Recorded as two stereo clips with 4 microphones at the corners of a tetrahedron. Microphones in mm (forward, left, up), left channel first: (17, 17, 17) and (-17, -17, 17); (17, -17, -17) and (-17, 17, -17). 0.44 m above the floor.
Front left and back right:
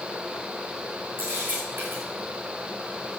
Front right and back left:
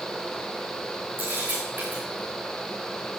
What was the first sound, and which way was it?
A camera shutter, straight behind.